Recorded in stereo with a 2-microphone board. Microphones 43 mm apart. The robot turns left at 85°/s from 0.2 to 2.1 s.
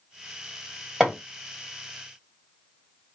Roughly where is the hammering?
Centre.